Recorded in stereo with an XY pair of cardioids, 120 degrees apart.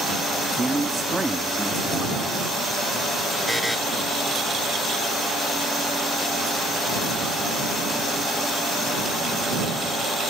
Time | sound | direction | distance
0.6 | a man speaking | 15° right | ?
3.5 | a buzzer | straight ahead | ?